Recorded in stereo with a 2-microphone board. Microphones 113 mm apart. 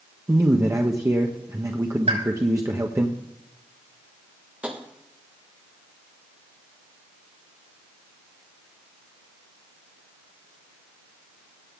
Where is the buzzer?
I don't hear a buzzer.